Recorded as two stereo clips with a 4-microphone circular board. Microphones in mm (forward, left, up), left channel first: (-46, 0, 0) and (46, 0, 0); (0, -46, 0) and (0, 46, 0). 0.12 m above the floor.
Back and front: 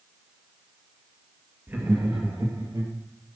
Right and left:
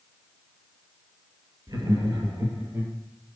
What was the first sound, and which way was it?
Laughter, 60° left.